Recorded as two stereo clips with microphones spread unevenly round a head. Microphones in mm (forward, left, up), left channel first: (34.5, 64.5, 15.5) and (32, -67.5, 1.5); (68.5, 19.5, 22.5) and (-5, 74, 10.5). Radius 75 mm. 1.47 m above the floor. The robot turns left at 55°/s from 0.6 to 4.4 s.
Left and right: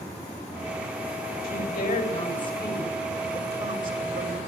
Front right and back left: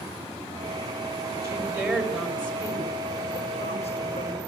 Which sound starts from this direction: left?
A woman speaking, at 1.4 s.